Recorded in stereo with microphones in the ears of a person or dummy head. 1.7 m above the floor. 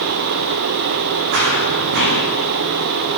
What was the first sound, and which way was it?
Running footsteps, 60° right (ahead or behind).